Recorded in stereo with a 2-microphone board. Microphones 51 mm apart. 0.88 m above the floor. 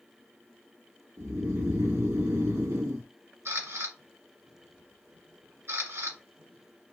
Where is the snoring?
80° right, 0.9 m.